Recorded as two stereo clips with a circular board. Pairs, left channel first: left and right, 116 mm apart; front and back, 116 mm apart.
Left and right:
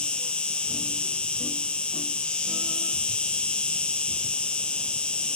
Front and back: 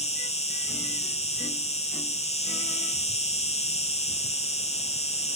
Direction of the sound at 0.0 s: 10° left.